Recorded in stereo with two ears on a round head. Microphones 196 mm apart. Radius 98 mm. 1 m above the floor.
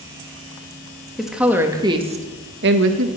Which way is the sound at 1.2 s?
Centre (ahead or behind).